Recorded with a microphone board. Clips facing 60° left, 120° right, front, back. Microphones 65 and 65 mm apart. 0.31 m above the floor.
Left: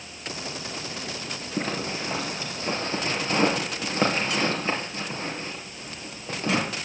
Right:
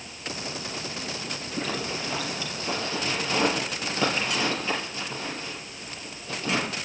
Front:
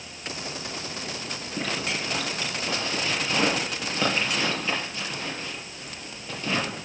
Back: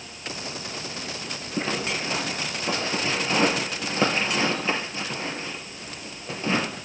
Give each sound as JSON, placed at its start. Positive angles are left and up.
{"t": 1.6, "sound": "a zipper", "azimuth_deg": 110, "distance_m": 3.0}